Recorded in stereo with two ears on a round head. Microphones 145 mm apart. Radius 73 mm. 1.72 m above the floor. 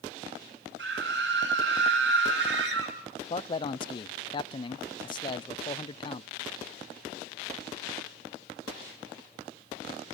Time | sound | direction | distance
0.8 | a scream | 80° right | 8.5 m
3.3 | a man speaking | 30° left (ahead or behind) | 0.5 m